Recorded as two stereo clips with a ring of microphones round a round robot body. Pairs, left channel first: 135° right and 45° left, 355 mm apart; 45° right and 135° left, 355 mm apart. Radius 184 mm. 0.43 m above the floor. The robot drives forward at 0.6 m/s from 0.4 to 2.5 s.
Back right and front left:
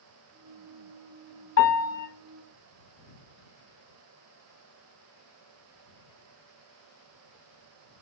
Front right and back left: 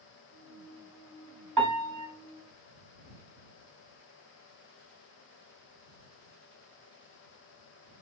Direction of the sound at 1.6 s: 170° left.